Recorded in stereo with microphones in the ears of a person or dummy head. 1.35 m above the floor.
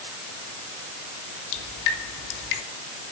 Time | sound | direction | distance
1.5 | dripping | 70° left (ahead or behind) | 3 m